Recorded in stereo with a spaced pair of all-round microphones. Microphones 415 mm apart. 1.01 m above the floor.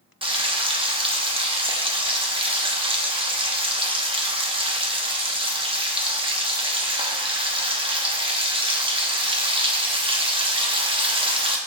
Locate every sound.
0.2 s frying: 10° right (ahead or behind), 1.0 m